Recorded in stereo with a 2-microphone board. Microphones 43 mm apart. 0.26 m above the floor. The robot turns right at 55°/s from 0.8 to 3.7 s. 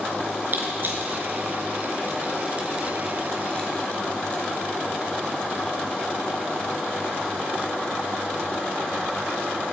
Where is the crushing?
50° right (ahead or behind), 3 m; by 4.4 s 30° left (ahead or behind), 3 m.